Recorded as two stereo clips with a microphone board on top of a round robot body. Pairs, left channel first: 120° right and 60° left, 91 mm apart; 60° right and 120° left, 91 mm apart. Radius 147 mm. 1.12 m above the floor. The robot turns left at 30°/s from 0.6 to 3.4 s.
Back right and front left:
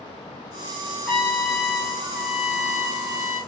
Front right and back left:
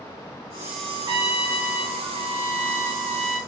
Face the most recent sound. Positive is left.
turn(degrees=95)